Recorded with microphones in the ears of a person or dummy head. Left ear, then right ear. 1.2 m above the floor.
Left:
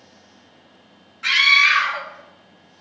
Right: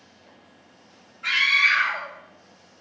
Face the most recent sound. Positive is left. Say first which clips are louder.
# left 5 dB
turn(degrees=70)  # may be behind; listen again after turning